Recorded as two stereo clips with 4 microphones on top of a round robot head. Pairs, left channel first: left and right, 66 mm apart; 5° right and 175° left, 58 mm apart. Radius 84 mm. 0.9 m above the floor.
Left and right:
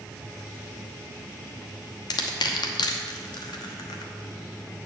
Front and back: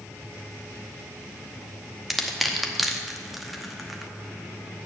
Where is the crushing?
90° left, 1.0 m.